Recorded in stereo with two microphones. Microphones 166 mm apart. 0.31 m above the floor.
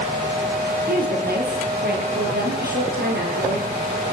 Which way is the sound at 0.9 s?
75° right (ahead or behind).